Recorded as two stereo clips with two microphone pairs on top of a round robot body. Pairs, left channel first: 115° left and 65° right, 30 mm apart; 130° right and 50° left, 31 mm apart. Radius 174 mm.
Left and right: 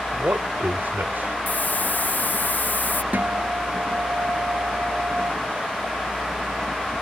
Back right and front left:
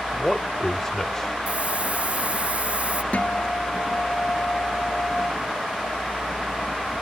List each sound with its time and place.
0.1 s a man speaking: 50° right; by 1.4 s 55° right
1.5 s a hiss: 95° left
3.1 s a guitar: 90° right